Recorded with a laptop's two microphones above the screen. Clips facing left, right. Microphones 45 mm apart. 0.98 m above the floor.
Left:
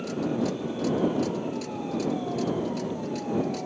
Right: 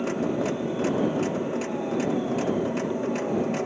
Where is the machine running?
45° right (ahead or behind).